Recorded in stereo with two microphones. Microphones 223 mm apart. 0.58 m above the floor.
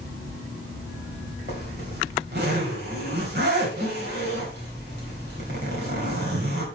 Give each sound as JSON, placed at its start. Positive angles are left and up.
{"t": 1.5, "sound": "a zipper", "side_deg": -50, "distance_m": 3.5}